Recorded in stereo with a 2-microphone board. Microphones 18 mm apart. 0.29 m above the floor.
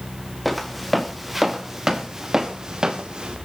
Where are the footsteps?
5° right (ahead or behind), 3.5 m; by 3.4 s 55° right (ahead or behind), 3 m.